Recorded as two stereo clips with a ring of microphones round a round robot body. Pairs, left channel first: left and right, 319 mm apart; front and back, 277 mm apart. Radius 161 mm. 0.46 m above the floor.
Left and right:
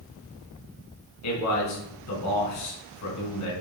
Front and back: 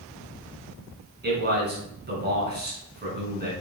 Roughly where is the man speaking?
Behind left.